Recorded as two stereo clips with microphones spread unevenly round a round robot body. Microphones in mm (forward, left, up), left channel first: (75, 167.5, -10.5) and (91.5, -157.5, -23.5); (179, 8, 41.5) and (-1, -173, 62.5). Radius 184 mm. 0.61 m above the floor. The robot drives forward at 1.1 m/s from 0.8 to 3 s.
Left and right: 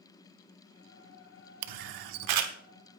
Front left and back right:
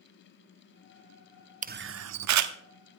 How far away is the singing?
I don't hear singing.